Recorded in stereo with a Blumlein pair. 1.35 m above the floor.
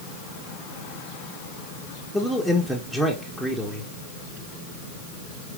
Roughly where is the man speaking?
Ahead.